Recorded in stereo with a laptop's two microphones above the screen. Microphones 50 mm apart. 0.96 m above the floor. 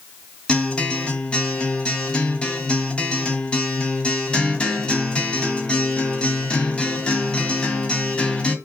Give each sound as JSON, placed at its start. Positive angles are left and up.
{"t": 0.5, "sound": "a guitar", "side_deg": 20, "distance_m": 1.8}